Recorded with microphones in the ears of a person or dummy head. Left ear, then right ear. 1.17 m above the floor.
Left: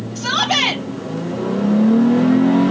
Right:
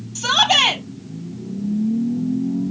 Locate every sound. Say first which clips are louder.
0.1 s a shout: right 2 dB; 80° right, 4.5 m